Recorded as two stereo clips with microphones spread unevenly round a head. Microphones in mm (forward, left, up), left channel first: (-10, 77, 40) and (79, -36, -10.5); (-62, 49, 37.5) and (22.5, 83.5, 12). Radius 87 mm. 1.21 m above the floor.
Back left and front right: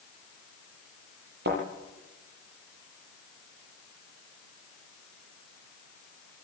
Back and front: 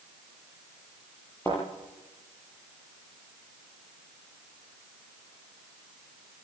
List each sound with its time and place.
1.4 s a thud: 80° right, 9 m